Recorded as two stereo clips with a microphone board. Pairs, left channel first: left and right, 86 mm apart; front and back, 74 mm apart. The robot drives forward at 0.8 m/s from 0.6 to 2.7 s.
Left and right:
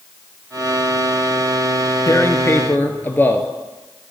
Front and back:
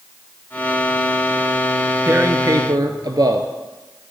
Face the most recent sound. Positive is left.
turn(degrees=155)